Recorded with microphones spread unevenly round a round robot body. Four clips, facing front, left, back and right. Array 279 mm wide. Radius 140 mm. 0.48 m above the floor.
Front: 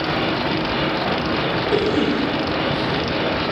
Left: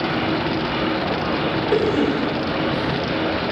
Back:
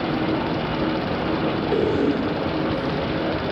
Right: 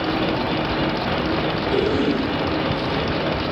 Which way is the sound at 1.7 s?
75° left.